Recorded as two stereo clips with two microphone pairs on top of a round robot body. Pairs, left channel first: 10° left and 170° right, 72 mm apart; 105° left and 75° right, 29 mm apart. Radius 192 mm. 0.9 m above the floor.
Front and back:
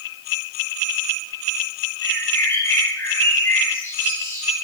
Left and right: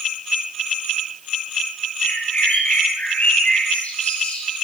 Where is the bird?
65° left, 9.5 m.